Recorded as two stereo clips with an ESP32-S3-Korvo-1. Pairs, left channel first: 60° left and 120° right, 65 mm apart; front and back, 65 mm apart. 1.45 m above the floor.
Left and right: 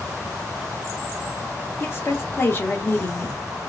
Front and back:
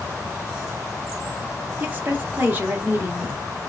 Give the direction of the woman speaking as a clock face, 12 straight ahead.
8 o'clock.